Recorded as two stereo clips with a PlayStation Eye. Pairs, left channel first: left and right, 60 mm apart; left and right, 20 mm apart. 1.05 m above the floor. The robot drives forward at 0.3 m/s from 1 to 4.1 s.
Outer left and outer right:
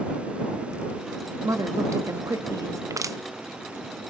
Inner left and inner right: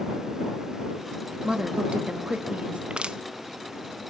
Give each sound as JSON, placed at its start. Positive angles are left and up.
{"t": 1.4, "sound": "a woman speaking", "side_deg": -65, "distance_m": 2.0}
{"t": 2.9, "sound": "crushing", "side_deg": -65, "distance_m": 0.5}